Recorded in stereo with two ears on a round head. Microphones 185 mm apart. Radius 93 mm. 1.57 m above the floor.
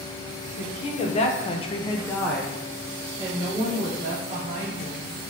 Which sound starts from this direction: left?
A woman speaking, at 0.6 s.